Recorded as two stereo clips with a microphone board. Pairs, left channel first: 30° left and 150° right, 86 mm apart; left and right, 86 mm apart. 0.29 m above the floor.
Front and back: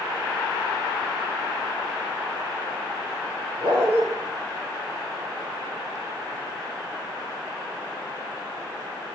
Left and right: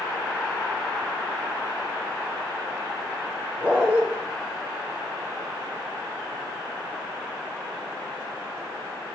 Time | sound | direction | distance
3.6 | a dog barking | 165° right | 6 m